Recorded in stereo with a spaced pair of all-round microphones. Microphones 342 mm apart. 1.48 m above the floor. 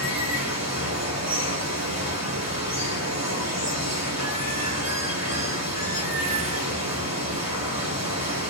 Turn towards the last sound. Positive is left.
turn(degrees=-50)  # may be behind; listen again after turning